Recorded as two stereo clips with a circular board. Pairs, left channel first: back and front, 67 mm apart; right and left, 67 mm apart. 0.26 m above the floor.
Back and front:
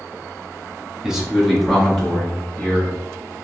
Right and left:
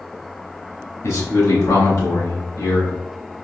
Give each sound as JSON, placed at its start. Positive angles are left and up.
{"t": 1.0, "sound": "a man speaking", "azimuth_deg": -75, "distance_m": 1.3}